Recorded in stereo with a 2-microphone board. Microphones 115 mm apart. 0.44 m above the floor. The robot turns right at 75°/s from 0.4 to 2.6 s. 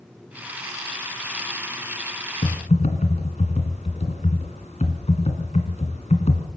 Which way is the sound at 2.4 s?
70° left (ahead or behind).